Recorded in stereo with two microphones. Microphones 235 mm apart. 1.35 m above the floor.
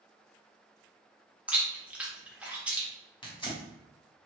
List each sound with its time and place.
1.5 s chewing: 5° right (ahead or behind), 0.8 m
3.2 s tearing paper: 20° left (ahead or behind), 1.1 m